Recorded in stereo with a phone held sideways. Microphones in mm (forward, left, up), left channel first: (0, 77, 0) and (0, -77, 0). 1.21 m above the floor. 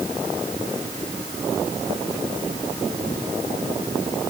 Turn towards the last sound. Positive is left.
No sound to turn to.